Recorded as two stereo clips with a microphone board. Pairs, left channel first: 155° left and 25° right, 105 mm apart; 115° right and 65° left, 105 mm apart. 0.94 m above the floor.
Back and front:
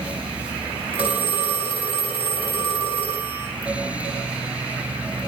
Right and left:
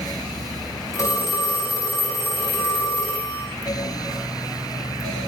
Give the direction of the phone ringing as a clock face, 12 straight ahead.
6 o'clock.